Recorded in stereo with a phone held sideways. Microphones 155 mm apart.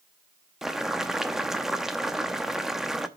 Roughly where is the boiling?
Centre.